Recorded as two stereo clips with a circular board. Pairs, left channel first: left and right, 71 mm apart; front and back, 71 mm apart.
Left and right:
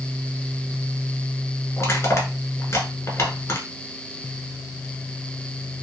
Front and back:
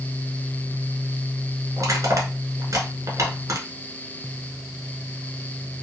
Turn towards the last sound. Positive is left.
turn(degrees=145)